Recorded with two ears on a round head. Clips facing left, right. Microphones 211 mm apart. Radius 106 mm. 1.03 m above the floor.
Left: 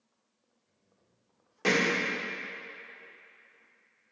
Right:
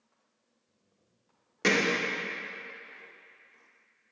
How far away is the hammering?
About 2 m.